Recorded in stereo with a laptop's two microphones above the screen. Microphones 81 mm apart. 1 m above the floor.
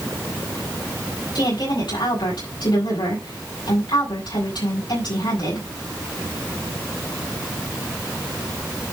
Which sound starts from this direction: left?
A woman speaking, at 1.4 s.